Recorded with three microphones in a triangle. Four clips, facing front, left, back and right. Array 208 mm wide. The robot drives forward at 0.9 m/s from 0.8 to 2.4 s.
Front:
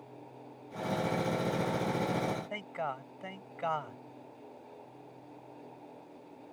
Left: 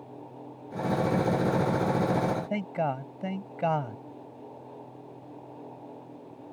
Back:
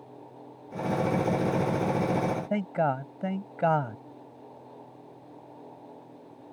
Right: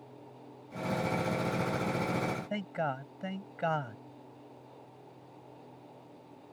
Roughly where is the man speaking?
Behind.